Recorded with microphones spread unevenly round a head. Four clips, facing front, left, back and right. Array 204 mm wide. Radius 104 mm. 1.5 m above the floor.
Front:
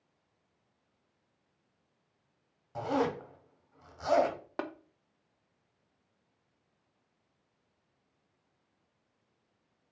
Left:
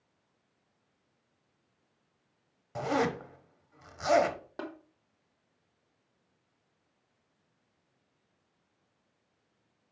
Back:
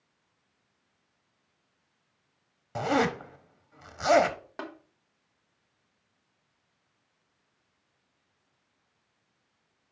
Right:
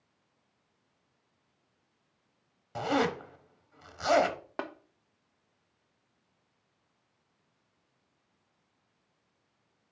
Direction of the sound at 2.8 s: 175° right.